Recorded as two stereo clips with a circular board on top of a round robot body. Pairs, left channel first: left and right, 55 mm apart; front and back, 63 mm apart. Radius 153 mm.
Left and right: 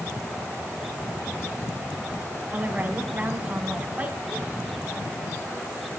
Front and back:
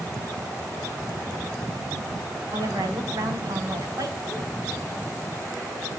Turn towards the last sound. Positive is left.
turn(degrees=-155)